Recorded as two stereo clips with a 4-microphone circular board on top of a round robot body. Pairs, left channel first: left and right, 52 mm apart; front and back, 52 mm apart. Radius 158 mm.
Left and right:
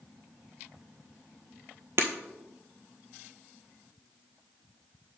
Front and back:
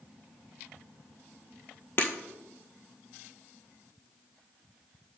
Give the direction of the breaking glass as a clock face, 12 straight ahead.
2 o'clock.